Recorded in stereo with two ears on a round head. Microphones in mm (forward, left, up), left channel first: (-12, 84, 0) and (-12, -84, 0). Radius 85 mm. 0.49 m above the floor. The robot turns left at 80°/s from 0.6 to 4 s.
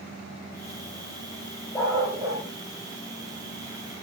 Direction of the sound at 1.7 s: 20° left.